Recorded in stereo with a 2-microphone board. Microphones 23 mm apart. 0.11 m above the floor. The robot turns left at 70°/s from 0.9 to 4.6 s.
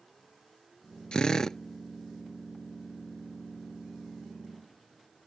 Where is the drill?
60° left; by 1.6 s 25° left.